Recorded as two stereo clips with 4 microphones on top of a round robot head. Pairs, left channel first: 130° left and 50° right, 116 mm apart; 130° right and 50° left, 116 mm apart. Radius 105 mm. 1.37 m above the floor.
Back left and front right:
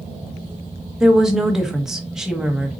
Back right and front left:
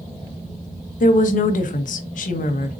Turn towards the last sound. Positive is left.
turn(degrees=-135)